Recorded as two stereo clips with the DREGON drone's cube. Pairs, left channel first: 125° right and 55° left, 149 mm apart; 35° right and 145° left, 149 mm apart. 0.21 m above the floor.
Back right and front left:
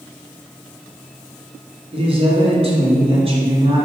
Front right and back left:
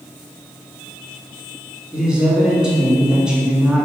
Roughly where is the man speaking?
Ahead left.